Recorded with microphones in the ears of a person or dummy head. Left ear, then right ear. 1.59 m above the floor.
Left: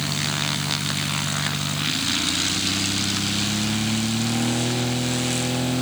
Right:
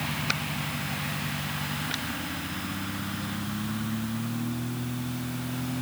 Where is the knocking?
No knocking in this recording.